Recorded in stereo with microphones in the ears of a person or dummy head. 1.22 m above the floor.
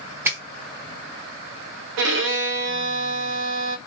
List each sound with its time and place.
0.2 s a finger snap: 10° right (ahead or behind), 0.8 m
2.0 s a violin: 65° right (ahead or behind), 0.5 m